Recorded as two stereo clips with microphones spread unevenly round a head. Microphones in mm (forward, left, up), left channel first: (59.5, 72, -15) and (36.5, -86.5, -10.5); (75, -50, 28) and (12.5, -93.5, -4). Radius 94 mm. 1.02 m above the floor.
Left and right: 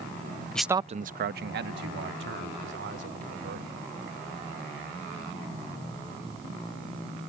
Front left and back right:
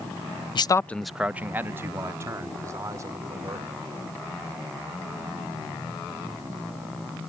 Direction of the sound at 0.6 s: Straight ahead.